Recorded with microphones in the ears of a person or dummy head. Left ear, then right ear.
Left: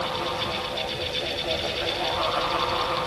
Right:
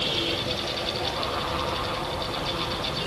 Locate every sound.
Only background noise.